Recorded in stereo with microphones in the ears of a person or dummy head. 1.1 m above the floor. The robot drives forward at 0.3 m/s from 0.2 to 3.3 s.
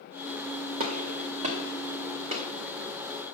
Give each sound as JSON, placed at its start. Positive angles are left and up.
{"t": 0.8, "sound": "a gunshot", "side_deg": -40, "distance_m": 2.0}